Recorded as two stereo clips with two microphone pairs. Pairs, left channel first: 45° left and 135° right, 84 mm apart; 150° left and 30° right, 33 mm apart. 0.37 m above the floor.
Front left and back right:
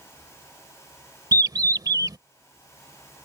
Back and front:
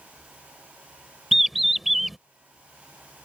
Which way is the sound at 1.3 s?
115° right.